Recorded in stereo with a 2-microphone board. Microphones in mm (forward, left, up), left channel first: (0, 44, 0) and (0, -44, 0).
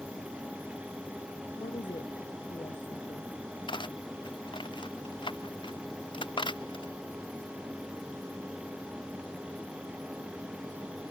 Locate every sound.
1.6 s a woman speaking: 65° left (ahead or behind)
3.7 s cutlery clinking: 65° left (ahead or behind)